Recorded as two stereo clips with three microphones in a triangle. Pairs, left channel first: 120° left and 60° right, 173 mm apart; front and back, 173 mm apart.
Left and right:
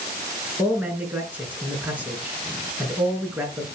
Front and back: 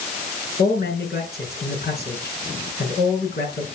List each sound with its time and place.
0.6 s a man speaking: 20° left, 4.5 m